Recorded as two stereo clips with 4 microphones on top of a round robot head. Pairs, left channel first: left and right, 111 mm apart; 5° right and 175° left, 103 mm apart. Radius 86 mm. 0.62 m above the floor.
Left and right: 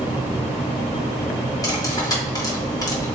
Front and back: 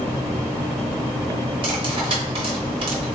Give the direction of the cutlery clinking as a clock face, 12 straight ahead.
7 o'clock.